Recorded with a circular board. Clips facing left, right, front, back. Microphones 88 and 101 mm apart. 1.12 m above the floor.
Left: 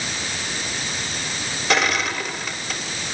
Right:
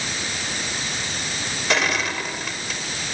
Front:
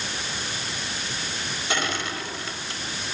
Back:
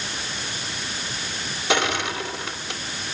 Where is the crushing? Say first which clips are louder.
Left 2 dB, back 6 dB; straight behind, 3.5 m.